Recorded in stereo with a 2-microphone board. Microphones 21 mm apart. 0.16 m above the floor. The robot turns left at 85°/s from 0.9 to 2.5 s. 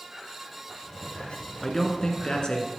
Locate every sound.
1.6 s a man speaking: 160° left, 1.5 m; by 2.7 s 85° left, 1.5 m